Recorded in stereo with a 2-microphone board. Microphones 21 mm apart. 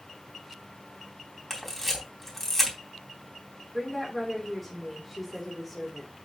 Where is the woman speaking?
Centre (ahead or behind), 3 m.